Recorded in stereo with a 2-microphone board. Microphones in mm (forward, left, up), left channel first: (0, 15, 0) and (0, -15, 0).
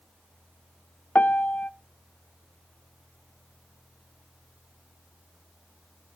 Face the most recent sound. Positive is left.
turn(degrees=65)  # may be behind; listen again after turning